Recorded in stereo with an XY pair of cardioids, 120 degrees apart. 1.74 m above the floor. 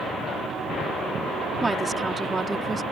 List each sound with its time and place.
1.6 s a woman speaking: 20° right